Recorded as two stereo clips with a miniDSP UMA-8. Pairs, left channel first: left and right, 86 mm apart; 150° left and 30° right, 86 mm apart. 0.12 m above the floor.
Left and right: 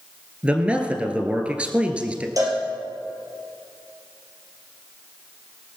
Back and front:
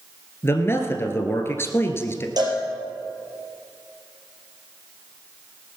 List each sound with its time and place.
0.4 s a man speaking: 160° right, 1.6 m
2.4 s a cowbell: 55° right, 3 m